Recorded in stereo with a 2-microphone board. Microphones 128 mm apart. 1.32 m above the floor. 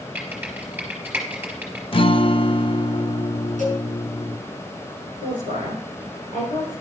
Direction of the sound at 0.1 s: 10° right (ahead or behind).